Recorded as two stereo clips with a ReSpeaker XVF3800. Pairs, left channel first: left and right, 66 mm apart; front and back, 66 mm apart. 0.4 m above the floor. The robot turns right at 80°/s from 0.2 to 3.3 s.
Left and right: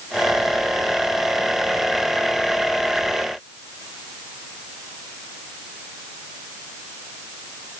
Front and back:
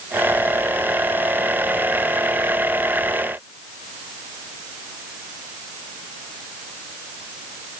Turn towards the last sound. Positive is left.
No sound to turn to.